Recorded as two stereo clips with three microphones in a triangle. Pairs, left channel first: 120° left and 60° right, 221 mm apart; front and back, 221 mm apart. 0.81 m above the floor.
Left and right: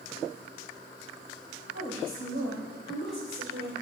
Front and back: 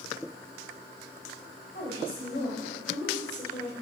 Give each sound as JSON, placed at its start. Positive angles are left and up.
{"t": 1.7, "sound": "a woman speaking", "azimuth_deg": -35, "distance_m": 3.5}